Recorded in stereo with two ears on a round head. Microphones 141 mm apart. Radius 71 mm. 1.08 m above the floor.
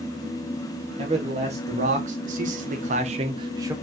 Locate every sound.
1.0 s a man speaking: 40° right (ahead or behind), 1.6 m; by 3.8 s 20° right (ahead or behind), 0.9 m